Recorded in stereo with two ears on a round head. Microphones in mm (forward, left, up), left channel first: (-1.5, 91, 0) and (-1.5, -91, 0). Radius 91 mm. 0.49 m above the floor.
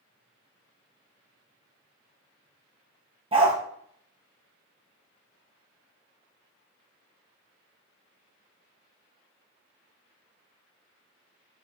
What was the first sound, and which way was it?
A dog barking, 25° right (ahead or behind).